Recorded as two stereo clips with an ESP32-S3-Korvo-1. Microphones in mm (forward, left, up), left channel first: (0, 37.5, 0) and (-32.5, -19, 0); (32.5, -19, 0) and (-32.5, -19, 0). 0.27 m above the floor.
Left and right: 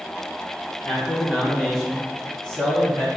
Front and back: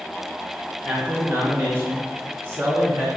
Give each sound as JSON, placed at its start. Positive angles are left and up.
{"t": 0.8, "sound": "a man speaking", "azimuth_deg": 145, "distance_m": 1.1}